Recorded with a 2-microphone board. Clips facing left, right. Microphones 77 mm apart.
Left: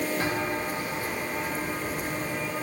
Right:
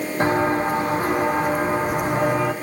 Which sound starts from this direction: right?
Footsteps, at 0.2 s.